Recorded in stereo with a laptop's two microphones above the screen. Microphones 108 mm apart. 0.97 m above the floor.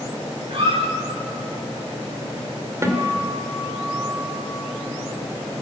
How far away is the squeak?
About 8.5 m.